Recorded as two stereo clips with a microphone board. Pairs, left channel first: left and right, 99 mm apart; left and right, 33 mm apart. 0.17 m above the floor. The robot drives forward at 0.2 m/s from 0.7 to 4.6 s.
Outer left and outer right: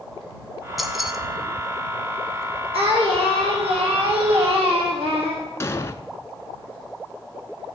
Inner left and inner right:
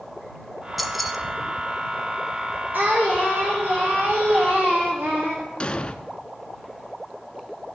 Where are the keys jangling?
Centre (ahead or behind), 1.1 m.